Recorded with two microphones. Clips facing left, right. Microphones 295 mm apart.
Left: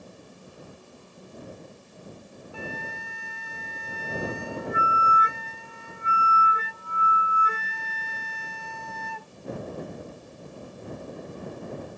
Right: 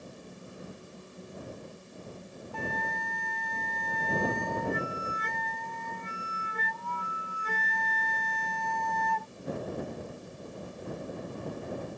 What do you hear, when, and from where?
2.5 s a flute: 10° left (ahead or behind)